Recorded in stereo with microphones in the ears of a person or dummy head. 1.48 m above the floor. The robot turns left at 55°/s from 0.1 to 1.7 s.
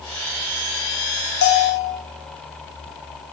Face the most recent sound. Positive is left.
turn(degrees=75)  # may be behind; listen again after turning